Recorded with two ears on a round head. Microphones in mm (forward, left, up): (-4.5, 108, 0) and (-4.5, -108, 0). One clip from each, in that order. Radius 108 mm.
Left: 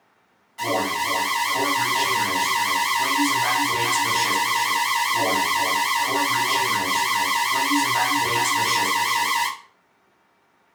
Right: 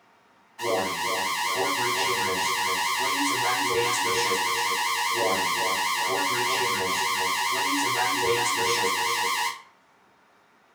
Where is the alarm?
45° left (ahead or behind), 2.5 m.